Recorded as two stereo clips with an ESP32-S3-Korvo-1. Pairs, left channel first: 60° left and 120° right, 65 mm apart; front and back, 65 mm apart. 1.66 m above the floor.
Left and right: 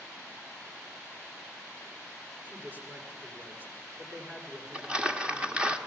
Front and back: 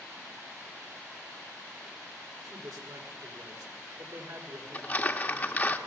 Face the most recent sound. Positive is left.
turn(degrees=-55)